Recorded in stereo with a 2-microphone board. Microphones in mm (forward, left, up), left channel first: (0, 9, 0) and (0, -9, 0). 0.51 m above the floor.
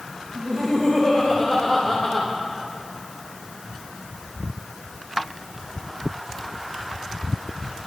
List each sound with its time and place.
0.3 s laughter: 55° left (ahead or behind), 3 m; by 2.3 s 30° left (ahead or behind), 2 m